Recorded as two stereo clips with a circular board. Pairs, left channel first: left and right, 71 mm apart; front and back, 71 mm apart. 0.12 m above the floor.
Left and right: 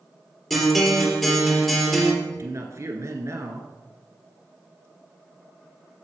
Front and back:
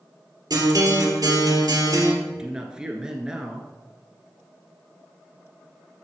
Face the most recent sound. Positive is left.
turn(degrees=-105)